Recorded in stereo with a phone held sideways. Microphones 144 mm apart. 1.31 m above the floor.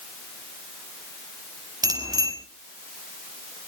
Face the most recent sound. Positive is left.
turn(degrees=-30)  # may be behind; listen again after turning